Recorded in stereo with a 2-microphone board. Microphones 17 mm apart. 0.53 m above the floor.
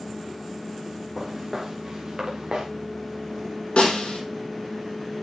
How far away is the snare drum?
About 5 m.